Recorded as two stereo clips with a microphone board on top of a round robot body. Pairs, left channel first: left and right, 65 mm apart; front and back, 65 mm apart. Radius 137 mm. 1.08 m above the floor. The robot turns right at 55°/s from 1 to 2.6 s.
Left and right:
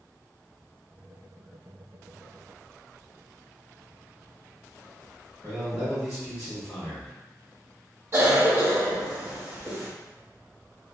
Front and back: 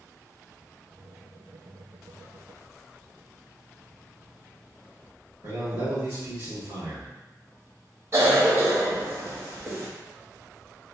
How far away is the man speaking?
About 1.5 m.